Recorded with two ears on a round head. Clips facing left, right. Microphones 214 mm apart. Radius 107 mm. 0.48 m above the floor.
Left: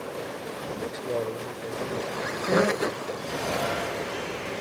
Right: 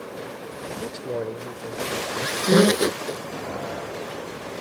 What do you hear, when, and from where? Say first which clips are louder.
0.8 s a man speaking: right 1 dB; 20° right (ahead or behind); by 2.1 s 10° right (ahead or behind)
2.2 s a squeak: right 7 dB; 45° right (ahead or behind)